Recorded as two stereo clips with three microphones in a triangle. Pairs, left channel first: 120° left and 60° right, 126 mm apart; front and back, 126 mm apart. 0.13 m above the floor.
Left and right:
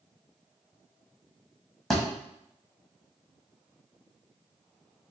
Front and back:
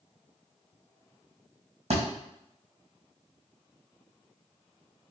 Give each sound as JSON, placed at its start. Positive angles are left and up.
{"t": 1.9, "sound": "a thud", "azimuth_deg": -155, "distance_m": 1.5}